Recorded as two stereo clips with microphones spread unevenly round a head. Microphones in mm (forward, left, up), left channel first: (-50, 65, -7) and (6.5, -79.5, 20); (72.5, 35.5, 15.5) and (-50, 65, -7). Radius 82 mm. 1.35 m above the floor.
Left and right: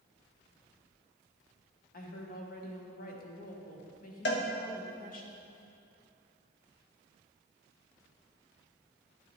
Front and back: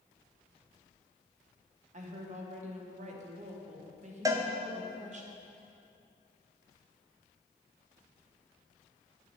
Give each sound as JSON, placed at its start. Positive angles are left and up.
{"t": 1.9, "sound": "a woman speaking", "azimuth_deg": 145, "distance_m": 1.2}
{"t": 4.2, "sound": "a cowbell", "azimuth_deg": 100, "distance_m": 0.7}